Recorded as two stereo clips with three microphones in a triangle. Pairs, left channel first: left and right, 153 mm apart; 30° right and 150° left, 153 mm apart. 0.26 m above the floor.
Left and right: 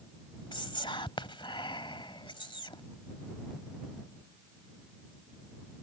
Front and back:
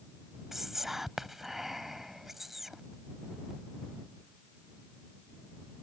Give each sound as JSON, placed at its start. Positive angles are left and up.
{"t": 0.5, "sound": "whispering", "azimuth_deg": 65}